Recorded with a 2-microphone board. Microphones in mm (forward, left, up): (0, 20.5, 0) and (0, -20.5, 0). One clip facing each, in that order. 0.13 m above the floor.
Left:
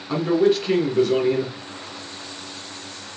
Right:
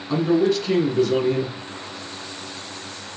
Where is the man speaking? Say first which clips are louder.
Even; 15° left (ahead or behind), 1.4 m.